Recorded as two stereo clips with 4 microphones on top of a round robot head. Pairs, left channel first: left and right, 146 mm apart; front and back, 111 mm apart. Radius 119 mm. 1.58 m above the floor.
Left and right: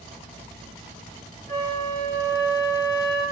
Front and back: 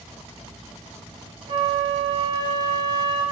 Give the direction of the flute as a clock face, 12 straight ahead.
7 o'clock.